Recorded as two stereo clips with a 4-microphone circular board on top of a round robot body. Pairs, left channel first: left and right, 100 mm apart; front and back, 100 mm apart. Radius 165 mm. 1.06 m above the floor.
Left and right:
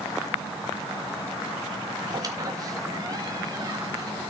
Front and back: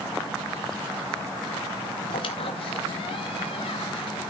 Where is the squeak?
35° right, 0.6 m.